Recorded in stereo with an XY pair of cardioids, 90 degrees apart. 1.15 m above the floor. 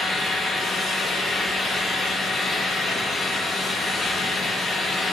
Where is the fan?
65° left, 1.4 m.